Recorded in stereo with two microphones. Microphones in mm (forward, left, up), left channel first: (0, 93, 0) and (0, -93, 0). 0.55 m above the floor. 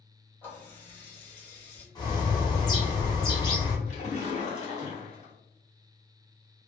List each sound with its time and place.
0.4 s a running tap: 10° left (ahead or behind), 1.3 m
1.9 s a bird: 20° left (ahead or behind), 0.7 m
3.9 s a splash: 40° left (ahead or behind), 1.2 m